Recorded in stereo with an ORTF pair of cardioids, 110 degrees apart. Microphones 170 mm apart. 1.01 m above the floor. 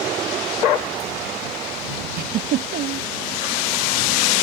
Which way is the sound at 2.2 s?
65° right.